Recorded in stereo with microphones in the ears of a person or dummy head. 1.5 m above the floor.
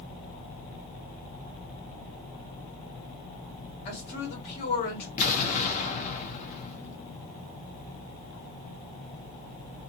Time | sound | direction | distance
3.9 | a woman speaking | 60° left (ahead or behind) | 1.9 m
5.2 | an explosion | 45° left (ahead or behind) | 0.9 m